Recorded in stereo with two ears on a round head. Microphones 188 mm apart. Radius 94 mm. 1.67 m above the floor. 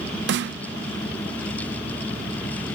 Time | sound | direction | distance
0.3 | a snare drum | 55° right (ahead or behind) | ?